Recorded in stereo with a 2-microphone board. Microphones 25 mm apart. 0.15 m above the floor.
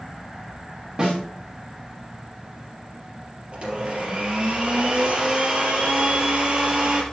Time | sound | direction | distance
1.0 | a snare drum | 35° right (ahead or behind) | 6 m
3.5 | a blender | 40° right (ahead or behind) | 4 m